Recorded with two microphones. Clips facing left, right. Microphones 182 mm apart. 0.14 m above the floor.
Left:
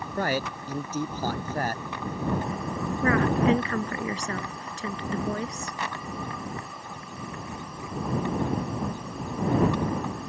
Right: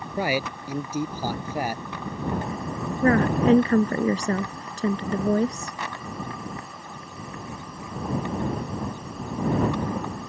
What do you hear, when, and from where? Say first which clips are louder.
0.2 s a man speaking: right 2 dB; 10° right (ahead or behind)
3.0 s a woman speaking: right 3 dB; 40° right (ahead or behind)